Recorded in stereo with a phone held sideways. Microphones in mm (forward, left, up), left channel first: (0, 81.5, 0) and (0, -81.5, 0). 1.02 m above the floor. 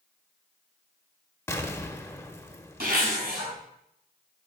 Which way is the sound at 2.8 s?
75° right (ahead or behind).